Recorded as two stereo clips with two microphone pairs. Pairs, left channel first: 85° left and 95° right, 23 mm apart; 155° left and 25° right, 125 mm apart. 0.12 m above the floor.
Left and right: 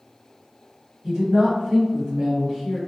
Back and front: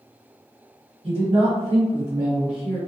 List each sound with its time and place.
1.0 s a woman speaking: 40° right, 1.9 m; by 2.8 s 60° left, 1.4 m